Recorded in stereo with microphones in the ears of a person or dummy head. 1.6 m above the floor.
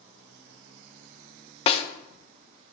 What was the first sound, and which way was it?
A snare drum, 30° left (ahead or behind).